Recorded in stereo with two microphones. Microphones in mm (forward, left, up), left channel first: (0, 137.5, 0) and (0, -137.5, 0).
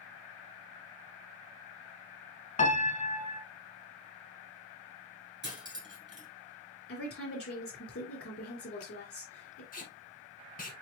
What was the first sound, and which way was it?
A piano, 25° left (ahead or behind).